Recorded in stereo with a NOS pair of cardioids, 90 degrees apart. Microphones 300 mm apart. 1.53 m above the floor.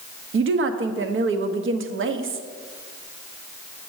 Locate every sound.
0.3 s a woman speaking: 40° right, 0.9 m